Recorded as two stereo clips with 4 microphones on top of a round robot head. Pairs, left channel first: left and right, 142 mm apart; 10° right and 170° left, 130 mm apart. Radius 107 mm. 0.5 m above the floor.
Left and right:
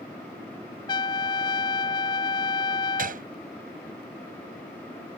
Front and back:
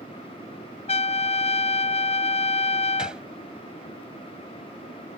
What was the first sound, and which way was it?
A trumpet, 25° left.